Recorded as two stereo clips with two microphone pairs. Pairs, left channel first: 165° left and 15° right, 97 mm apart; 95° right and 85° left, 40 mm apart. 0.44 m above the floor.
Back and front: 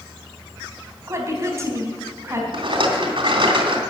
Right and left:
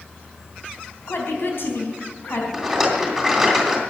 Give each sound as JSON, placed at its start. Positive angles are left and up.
{"t": 1.1, "sound": "a woman speaking", "azimuth_deg": -75, "distance_m": 3.5}
{"t": 2.5, "sound": "a rattle", "azimuth_deg": -5, "distance_m": 2.5}